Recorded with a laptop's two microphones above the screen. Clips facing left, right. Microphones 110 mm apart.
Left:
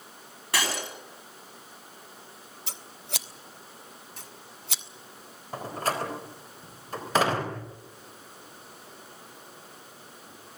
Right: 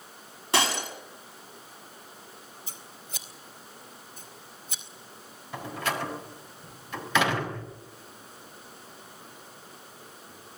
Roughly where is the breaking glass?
Right.